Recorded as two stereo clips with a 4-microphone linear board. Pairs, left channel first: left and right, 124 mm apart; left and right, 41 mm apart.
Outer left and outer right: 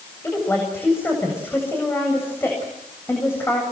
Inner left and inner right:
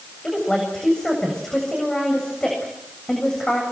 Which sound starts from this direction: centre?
A woman speaking, at 0.2 s.